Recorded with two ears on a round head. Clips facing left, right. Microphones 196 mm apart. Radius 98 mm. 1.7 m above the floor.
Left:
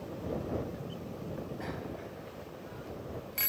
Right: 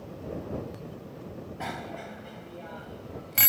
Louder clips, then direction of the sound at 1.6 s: Right 2 dB; 80° right.